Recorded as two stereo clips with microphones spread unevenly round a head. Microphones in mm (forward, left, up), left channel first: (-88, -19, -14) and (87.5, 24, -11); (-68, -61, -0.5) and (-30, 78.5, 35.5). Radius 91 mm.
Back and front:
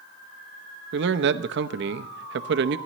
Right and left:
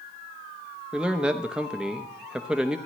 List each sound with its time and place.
0.9 s a man speaking: 15° right, 0.7 m